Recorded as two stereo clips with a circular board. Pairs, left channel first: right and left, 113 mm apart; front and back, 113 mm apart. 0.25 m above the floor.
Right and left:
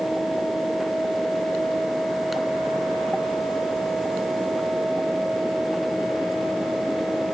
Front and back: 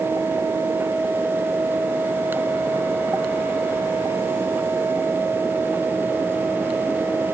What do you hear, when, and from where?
Only background noise.